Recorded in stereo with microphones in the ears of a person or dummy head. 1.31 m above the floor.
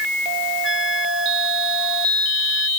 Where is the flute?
Centre (ahead or behind).